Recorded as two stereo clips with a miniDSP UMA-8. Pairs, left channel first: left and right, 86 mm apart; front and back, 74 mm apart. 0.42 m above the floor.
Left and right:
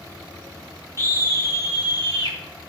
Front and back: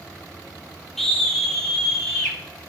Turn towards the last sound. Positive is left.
turn(degrees=85)